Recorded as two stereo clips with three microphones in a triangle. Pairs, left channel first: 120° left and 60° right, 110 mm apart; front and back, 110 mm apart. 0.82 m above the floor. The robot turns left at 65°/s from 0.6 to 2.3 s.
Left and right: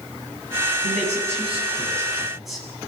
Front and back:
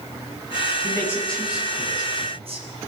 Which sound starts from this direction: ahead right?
A man speaking, at 0.8 s.